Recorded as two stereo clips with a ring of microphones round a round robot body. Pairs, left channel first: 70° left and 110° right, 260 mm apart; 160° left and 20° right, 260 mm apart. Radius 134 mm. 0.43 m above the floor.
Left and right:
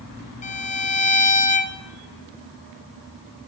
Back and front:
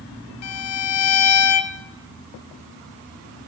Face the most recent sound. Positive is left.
turn(degrees=130)